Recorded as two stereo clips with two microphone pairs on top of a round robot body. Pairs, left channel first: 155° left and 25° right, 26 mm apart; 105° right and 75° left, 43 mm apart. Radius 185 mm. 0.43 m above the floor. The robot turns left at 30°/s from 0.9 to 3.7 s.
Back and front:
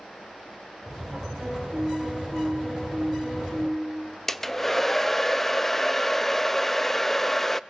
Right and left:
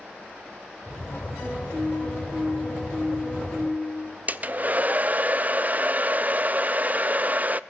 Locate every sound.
1.4 s a piano: 100° right, 9.5 m; by 4.2 s 170° right, 9.5 m
4.3 s a hair dryer: 105° left, 0.7 m